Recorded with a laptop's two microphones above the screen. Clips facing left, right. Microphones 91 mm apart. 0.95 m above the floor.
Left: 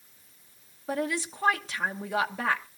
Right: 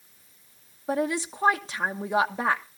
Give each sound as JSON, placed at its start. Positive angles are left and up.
{"t": 0.9, "sound": "a woman speaking", "side_deg": -25, "distance_m": 1.1}